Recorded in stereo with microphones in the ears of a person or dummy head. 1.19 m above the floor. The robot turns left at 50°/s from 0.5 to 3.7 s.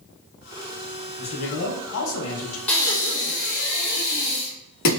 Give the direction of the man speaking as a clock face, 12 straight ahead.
7 o'clock.